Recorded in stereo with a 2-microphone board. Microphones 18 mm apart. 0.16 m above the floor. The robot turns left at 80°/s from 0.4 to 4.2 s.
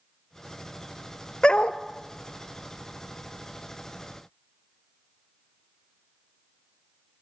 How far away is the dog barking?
About 1.1 m.